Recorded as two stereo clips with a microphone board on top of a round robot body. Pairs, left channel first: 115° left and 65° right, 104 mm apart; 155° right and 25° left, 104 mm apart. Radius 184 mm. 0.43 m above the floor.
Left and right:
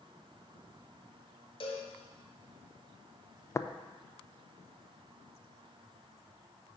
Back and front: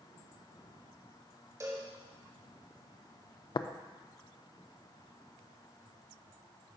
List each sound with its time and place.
1.6 s a cowbell: 80° left, 1.1 m
3.5 s tapping: 170° left, 0.6 m